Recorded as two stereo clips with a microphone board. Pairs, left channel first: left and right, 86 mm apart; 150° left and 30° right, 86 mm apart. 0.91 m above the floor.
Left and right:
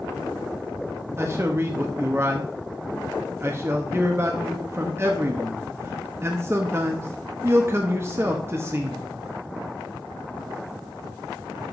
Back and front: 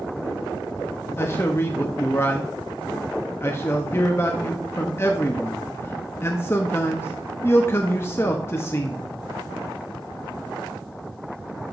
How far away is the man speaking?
About 0.8 m.